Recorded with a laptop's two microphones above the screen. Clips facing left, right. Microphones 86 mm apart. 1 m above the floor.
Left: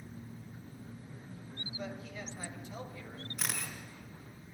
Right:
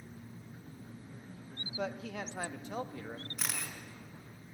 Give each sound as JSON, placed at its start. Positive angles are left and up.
{"t": 1.8, "sound": "a man speaking", "side_deg": -75, "distance_m": 1.4}
{"t": 3.4, "sound": "a camera shutter", "side_deg": 0, "distance_m": 5.5}